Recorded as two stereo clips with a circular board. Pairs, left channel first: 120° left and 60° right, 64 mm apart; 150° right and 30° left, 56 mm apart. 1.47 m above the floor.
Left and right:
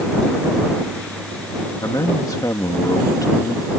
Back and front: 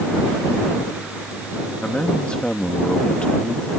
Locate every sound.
1.8 s a man speaking: 140° left